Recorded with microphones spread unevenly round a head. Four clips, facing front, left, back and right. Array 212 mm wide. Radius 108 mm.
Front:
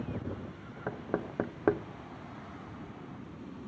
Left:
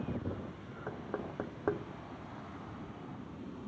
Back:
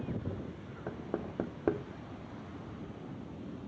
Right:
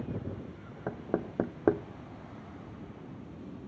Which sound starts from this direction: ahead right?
Knocking, at 0.9 s.